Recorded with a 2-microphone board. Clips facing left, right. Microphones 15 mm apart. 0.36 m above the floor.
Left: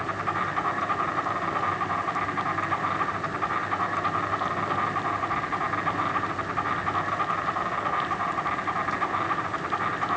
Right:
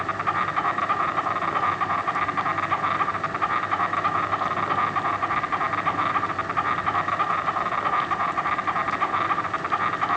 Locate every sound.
0.0 s an insect: 25° right (ahead or behind), 3.5 m